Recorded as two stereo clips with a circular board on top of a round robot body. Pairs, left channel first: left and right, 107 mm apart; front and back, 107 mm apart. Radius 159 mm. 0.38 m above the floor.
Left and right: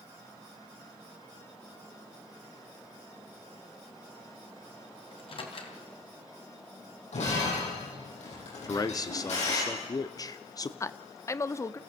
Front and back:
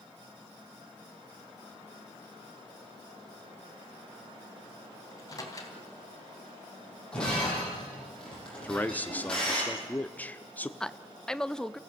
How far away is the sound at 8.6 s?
About 1.0 m.